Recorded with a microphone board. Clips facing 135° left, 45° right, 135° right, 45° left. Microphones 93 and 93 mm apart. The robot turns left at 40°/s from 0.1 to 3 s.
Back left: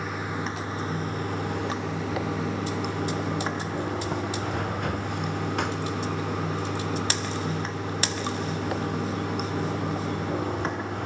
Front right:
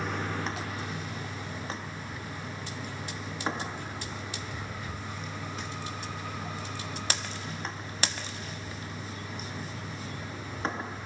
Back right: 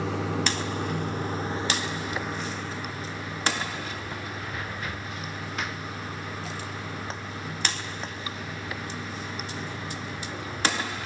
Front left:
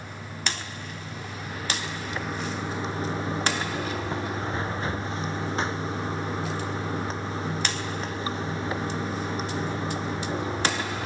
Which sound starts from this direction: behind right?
Running water, at 0.0 s.